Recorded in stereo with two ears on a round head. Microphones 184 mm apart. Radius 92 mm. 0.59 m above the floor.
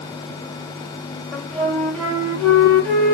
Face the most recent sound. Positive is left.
turn(degrees=5)  # may be behind; listen again after turning